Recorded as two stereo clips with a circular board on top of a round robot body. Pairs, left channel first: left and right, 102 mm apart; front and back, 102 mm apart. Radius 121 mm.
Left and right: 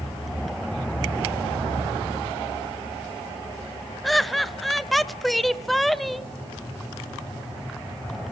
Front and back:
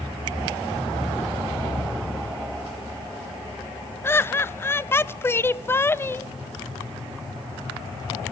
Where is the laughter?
Straight ahead, 1.1 m.